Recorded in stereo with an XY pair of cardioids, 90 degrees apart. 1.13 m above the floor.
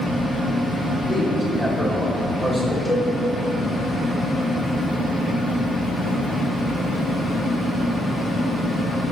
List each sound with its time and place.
1.1 s a man speaking: 15° left, 2.5 m
2.9 s a cowbell: 5° left, 3 m